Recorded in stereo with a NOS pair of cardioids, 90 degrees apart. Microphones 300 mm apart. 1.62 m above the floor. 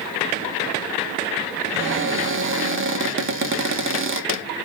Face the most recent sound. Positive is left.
turn(degrees=-45)